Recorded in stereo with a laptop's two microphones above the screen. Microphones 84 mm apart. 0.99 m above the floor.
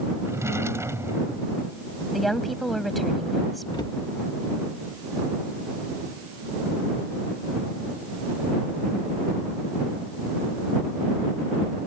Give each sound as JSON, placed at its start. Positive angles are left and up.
{"t": 0.2, "sound": "a drawer", "side_deg": -35}
{"t": 2.1, "sound": "a woman speaking", "side_deg": 0}
{"t": 3.7, "sound": "a cupboard door", "side_deg": 55}